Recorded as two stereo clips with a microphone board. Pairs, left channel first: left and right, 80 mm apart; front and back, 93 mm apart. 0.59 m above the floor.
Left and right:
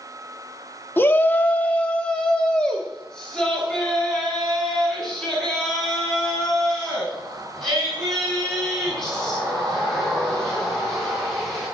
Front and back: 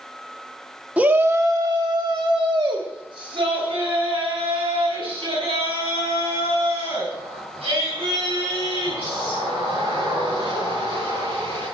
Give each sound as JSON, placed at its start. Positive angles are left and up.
{"t": 1.0, "sound": "a shout", "azimuth_deg": 120, "distance_m": 1.2}